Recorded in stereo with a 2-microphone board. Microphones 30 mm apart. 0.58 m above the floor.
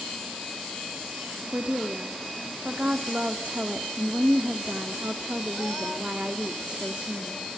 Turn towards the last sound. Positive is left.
turn(degrees=-45)  # may be behind; listen again after turning